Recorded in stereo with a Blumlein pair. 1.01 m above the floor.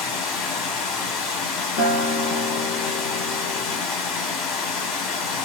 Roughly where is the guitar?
Ahead left.